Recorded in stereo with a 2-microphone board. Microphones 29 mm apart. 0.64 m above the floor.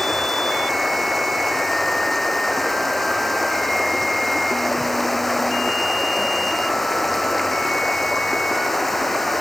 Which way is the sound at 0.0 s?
Centre (ahead or behind).